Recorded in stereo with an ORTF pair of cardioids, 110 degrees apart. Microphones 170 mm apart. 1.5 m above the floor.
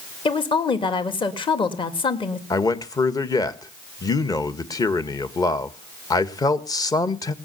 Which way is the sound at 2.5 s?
20° left.